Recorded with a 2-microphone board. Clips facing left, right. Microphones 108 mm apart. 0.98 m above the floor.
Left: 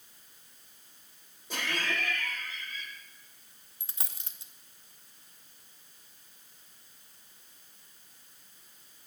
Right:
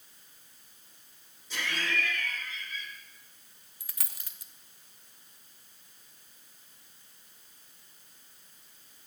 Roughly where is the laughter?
Left.